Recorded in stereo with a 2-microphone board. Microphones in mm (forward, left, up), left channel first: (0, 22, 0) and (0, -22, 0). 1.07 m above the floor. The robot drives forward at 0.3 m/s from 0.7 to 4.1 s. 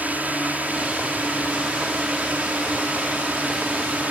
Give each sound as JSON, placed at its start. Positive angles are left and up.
{"t": 0.0, "sound": "a drone", "side_deg": -35}